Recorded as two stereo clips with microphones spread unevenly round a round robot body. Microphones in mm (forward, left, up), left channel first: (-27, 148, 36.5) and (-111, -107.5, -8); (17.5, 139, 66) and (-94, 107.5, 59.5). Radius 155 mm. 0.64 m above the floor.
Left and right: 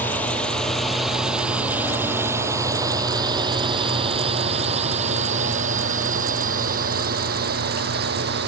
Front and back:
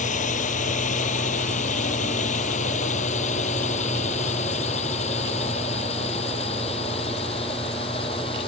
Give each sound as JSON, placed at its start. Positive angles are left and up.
{"t": 0.0, "sound": "a drone", "azimuth_deg": -15}